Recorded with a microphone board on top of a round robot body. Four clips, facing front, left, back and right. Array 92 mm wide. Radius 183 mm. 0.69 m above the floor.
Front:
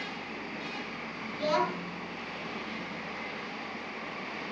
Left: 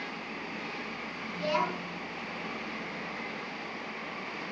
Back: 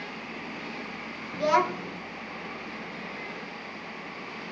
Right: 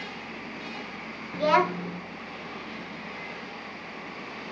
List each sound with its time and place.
1.3 s a child speaking: 110° right, 1.3 m